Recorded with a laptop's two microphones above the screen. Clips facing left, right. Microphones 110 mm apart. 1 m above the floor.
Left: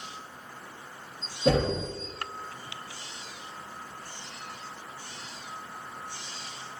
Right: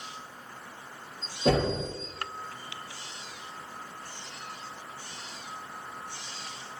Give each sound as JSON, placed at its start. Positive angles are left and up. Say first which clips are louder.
{"t": 1.4, "sound": "knocking", "louder": "left 1 dB", "side_deg": -40, "distance_m": 1.1}